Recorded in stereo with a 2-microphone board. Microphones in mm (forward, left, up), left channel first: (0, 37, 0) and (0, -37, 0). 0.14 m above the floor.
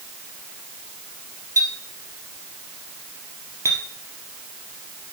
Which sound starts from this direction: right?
A clink, at 1.6 s.